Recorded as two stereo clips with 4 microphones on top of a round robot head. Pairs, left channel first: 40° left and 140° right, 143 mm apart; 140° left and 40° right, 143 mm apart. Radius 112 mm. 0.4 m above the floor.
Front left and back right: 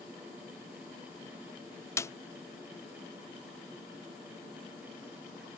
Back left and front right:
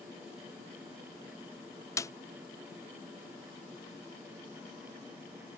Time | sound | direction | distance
2.0 | a snare drum | 90° left | ?